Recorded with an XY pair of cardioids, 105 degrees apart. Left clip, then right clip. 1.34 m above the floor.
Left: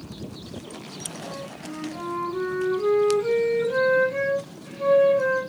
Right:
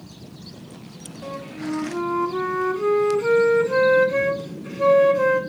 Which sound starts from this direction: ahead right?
A flute, at 1.2 s.